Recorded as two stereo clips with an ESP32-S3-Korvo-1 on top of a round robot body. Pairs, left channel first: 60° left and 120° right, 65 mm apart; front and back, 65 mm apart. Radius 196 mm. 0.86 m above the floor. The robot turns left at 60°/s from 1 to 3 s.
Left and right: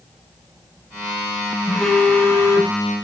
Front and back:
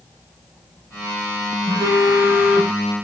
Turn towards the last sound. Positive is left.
turn(degrees=80)